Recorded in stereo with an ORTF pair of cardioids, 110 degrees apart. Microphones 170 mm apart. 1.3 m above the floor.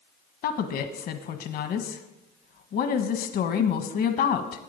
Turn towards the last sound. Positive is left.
turn(degrees=60)